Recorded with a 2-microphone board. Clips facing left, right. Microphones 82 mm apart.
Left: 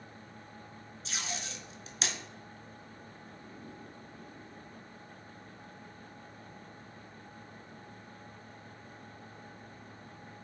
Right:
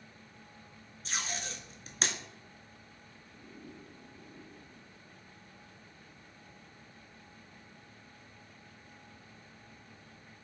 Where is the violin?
I don't hear a violin.